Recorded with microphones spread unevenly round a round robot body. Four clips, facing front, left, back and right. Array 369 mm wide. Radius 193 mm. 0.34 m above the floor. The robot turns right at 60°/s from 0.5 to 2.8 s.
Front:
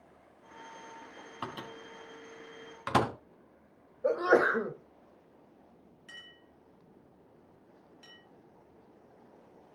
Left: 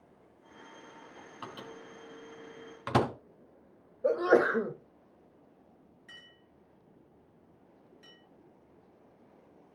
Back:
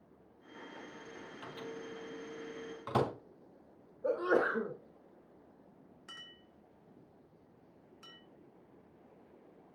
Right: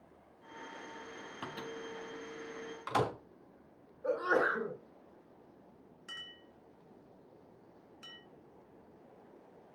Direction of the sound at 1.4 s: 25° right.